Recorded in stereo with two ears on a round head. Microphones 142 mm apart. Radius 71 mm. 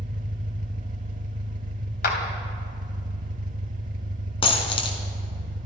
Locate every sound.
0.0 s an engine running: 55° right (ahead or behind), 1.0 m
2.0 s a clap: 60° left (ahead or behind), 2.5 m
4.4 s a dropped coin: 35° left (ahead or behind), 2.0 m